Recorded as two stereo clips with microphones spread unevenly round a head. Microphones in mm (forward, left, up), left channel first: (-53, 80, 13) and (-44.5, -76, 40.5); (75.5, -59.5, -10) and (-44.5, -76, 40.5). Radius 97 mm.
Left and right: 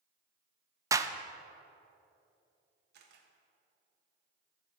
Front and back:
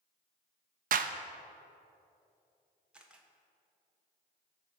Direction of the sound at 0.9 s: 160° right.